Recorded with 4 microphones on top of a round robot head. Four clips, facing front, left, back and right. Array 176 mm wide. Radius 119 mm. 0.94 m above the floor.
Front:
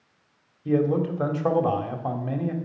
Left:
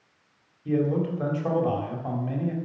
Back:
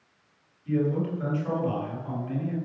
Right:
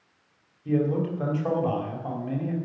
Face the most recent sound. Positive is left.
turn(degrees=0)